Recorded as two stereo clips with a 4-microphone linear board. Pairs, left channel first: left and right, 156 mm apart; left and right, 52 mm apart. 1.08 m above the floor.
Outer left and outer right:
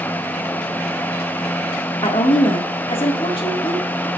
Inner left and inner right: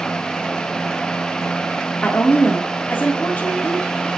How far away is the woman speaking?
About 2 m.